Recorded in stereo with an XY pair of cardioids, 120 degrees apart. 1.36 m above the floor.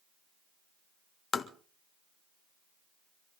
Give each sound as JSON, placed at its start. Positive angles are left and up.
{"t": 1.3, "sound": "tapping", "azimuth_deg": 30, "distance_m": 1.5}